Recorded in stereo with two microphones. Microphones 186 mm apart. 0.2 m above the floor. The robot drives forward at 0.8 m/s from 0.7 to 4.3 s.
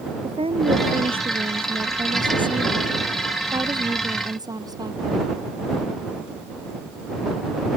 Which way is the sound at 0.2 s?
30° right (ahead or behind).